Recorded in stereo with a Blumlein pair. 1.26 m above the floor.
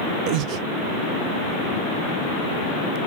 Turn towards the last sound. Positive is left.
turn(degrees=-35)